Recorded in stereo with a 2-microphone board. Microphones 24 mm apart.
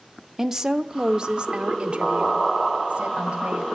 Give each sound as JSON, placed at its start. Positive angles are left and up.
{"t": 0.4, "sound": "a woman speaking", "side_deg": -15, "distance_m": 1.0}